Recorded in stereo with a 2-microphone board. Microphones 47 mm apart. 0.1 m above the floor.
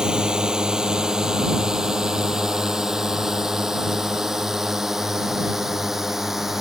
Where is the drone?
15° right (ahead or behind); by 6.6 s 5° right (ahead or behind).